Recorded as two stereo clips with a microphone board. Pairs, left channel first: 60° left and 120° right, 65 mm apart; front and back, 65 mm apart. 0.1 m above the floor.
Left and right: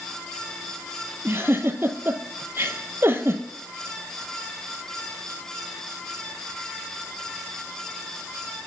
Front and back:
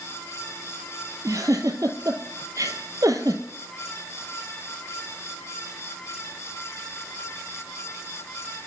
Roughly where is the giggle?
Behind.